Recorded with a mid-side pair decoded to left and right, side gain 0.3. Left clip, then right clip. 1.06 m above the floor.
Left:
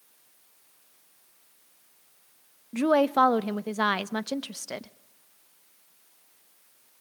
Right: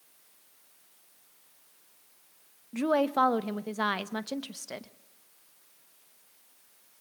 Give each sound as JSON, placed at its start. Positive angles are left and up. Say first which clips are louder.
{"t": 2.7, "sound": "a woman speaking", "louder": "left 4 dB", "azimuth_deg": 40, "distance_m": 0.9}